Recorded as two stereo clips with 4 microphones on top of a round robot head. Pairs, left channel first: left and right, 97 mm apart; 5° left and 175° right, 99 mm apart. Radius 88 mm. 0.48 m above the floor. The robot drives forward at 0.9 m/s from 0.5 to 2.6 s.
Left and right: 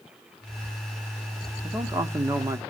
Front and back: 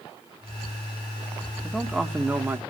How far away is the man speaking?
About 1.5 m.